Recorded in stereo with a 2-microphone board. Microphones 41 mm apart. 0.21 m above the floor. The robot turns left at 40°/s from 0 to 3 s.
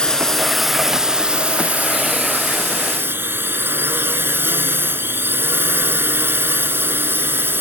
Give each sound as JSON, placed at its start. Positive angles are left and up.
{"t": 0.0, "sound": "a drone", "azimuth_deg": 25}